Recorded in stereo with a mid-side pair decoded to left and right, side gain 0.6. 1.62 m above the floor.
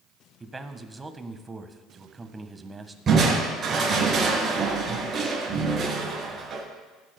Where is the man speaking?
20° right, 1.4 m.